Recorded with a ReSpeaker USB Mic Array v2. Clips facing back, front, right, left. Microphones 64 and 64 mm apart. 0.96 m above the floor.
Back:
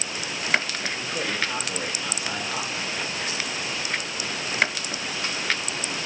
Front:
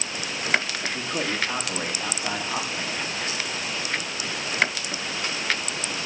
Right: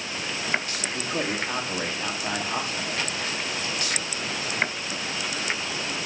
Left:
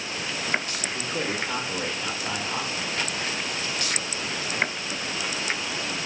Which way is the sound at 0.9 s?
50° right.